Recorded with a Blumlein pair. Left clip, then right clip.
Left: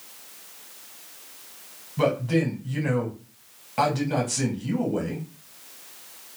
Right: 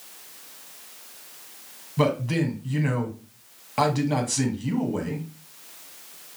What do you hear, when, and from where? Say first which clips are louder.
2.0 s a man speaking: left 1 dB; 10° right, 1.0 m